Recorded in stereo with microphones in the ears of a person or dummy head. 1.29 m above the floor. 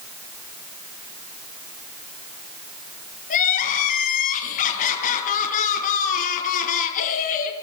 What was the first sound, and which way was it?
Crying, 45° left (ahead or behind).